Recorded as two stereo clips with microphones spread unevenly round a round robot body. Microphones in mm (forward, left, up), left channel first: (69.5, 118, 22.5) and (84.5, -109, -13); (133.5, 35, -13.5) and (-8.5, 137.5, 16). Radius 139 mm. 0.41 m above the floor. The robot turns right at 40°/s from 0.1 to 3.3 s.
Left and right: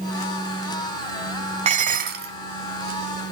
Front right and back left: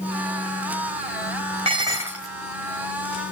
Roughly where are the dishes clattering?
Behind right.